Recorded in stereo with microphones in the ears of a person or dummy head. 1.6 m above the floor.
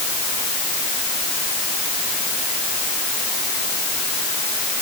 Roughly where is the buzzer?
I don't hear a buzzer.